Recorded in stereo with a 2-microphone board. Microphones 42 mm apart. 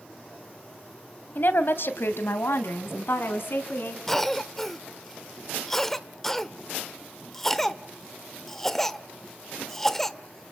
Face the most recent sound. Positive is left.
turn(degrees=10)  # may be behind; listen again after turning